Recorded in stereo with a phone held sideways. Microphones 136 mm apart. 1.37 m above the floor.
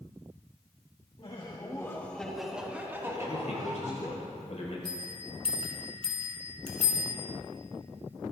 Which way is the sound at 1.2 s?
45° left (ahead or behind).